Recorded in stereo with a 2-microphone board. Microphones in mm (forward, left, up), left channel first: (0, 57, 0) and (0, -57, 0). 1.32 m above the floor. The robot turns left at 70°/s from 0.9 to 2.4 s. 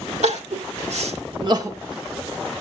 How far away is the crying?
About 1.5 m.